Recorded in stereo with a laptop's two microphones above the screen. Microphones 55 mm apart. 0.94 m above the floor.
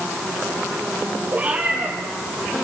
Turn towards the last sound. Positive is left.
turn(degrees=-30)  # may be behind; listen again after turning